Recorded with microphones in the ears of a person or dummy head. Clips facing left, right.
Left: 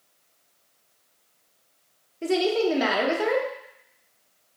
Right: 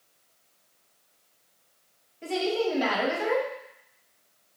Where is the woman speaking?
60° left (ahead or behind), 1.3 m.